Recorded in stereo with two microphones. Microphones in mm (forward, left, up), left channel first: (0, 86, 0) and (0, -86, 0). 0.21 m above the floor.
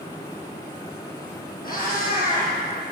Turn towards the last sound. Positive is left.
turn(degrees=60)  # may be behind; listen again after turning